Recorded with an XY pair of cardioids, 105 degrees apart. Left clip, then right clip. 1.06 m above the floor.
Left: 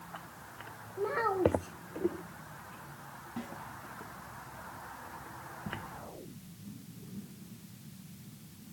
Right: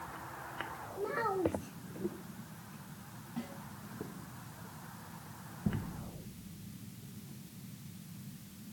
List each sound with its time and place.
1.0 s a child speaking: 30° left, 1.4 m
3.4 s a snare drum: 20° left, 5.5 m